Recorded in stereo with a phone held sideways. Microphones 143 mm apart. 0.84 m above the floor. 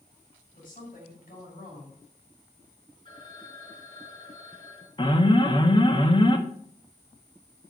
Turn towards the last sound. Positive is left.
turn(degrees=35)  # may be behind; listen again after turning